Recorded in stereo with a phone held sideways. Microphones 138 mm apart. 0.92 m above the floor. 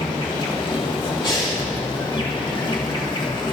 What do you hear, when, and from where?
0.0 s an insect: 35° left (ahead or behind), 1.7 m
1.2 s breathing: 30° left (ahead or behind), 2.5 m